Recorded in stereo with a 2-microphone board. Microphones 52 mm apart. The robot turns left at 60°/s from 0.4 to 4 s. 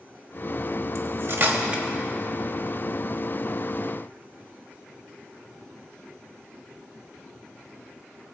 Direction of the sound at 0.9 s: 60° right (ahead or behind).